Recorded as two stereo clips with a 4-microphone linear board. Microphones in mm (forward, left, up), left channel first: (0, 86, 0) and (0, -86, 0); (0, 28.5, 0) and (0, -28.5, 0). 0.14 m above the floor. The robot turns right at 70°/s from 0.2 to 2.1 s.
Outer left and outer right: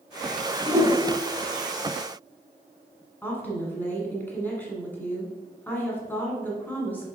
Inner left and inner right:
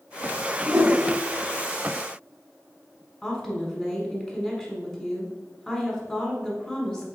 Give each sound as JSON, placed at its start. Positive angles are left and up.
{"t": 0.7, "sound": "a whoosh", "side_deg": -10, "distance_m": 0.8}
{"t": 3.2, "sound": "a woman speaking", "side_deg": 10, "distance_m": 1.1}